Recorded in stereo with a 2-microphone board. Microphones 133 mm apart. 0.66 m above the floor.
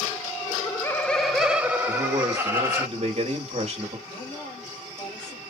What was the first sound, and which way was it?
Laughter, 25° left (ahead or behind).